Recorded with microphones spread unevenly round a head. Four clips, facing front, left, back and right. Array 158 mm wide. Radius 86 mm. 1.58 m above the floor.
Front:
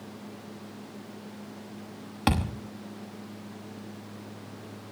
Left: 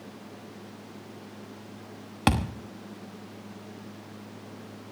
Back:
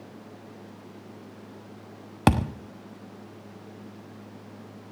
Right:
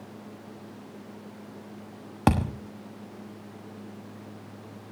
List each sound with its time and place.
2.3 s a thud: 160° right, 1.1 m